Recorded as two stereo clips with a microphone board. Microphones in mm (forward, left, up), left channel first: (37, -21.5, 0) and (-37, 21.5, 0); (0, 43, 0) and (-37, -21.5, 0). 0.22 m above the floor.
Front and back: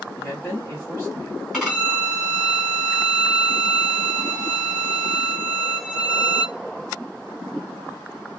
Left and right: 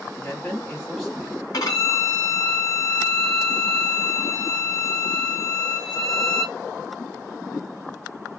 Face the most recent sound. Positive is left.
turn(degrees=65)